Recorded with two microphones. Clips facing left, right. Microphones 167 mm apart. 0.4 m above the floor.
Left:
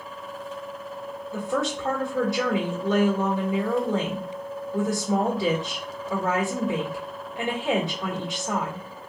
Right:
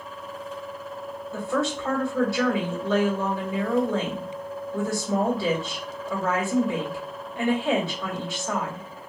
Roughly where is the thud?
No thud in this recording.